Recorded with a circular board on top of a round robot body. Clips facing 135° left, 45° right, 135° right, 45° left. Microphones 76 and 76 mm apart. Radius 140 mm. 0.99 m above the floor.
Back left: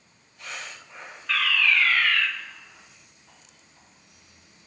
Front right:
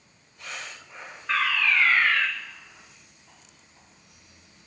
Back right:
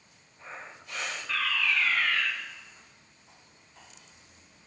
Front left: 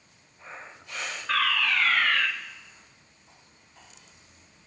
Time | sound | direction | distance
1.3 | a fire alarm | 20° left | 3.5 m